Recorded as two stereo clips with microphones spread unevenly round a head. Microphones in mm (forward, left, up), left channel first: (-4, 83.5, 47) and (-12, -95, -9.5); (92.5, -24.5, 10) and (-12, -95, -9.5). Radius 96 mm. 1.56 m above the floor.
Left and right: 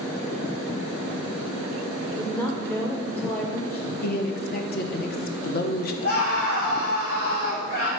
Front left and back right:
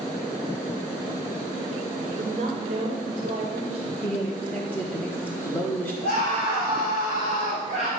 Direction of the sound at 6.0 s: 45° left.